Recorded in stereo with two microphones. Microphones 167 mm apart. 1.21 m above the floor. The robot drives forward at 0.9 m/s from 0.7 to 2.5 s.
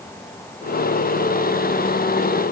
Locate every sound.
Only background noise.